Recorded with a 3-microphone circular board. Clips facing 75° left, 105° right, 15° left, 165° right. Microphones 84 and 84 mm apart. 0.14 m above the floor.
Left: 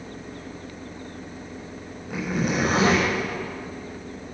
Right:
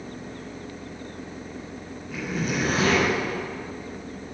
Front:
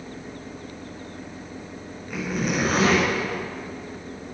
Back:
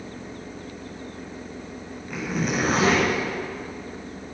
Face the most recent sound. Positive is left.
turn(degrees=105)